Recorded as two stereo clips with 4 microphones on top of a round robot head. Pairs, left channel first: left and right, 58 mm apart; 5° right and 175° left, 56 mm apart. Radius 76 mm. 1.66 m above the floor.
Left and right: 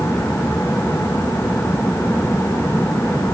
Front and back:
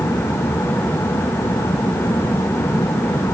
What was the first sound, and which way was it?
Only background noise.